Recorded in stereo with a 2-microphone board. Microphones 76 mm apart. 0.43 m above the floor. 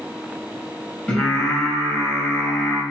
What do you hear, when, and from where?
1.1 s singing: 15° left (ahead or behind), 2 m